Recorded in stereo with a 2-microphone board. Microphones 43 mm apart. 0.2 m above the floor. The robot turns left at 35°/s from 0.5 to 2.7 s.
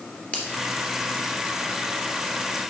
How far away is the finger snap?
About 2.5 m.